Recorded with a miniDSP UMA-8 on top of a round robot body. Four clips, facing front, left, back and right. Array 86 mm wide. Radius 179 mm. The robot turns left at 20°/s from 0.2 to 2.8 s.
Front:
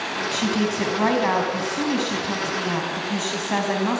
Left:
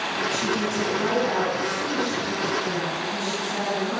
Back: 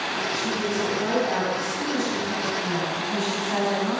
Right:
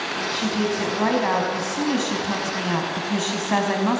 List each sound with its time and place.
0.3 s a woman speaking: 15° right, 4.5 m; by 4.0 s 65° right, 4.5 m